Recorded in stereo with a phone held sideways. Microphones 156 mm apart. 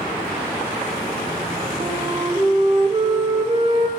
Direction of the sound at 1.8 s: 40° right (ahead or behind).